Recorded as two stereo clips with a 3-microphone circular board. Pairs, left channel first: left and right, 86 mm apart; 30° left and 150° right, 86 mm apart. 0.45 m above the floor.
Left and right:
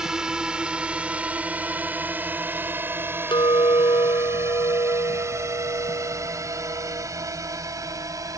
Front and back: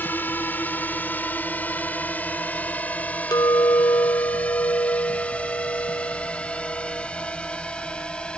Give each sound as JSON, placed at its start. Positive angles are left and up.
{"t": 0.0, "sound": "a drone", "azimuth_deg": -15}
{"t": 3.3, "sound": "a clink", "azimuth_deg": 70}